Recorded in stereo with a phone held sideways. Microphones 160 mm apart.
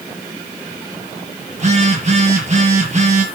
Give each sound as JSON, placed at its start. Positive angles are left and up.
{"t": 1.5, "sound": "a phone buzzing", "side_deg": -45, "distance_m": 6.5}